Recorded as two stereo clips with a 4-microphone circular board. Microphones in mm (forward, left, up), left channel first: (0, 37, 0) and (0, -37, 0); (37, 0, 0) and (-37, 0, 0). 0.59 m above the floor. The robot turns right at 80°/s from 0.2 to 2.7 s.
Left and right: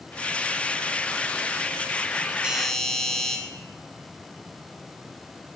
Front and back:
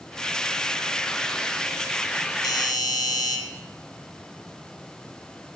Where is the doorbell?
10° right, 2.5 m; by 3.4 s 10° left, 2.5 m.